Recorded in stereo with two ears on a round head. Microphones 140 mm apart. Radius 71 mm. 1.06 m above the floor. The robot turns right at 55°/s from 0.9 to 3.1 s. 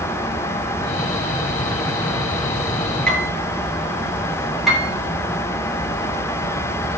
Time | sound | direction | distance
3.1 | a piano | 5° left (ahead or behind) | 8.5 m
4.7 | a piano | centre (ahead or behind) | 8 m